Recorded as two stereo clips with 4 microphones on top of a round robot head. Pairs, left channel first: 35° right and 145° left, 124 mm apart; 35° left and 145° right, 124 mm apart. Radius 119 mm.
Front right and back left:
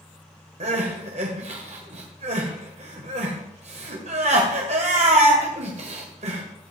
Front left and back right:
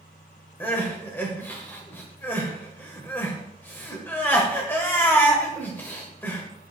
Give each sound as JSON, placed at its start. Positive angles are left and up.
{"t": 0.6, "sound": "crying", "azimuth_deg": 110, "distance_m": 1.5}